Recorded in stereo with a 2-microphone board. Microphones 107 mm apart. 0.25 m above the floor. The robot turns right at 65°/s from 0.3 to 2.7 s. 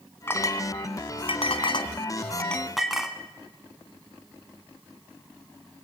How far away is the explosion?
I don't hear an explosion.